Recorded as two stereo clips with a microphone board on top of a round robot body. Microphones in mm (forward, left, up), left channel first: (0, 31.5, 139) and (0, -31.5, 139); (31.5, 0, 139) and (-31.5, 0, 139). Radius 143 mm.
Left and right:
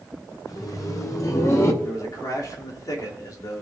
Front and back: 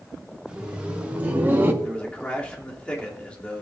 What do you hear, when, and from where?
0.5 s laughter: 105° left, 3 m; by 1.7 s 125° left, 2 m
1.8 s a man speaking: 75° left, 3 m